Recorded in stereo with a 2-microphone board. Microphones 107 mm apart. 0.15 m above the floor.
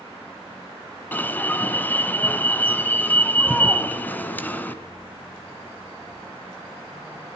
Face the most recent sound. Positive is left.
turn(degrees=15)  # may be behind; listen again after turning